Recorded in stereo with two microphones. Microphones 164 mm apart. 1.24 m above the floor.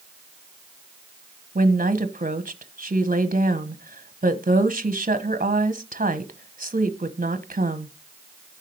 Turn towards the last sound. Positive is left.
turn(degrees=-55)  # may be behind; listen again after turning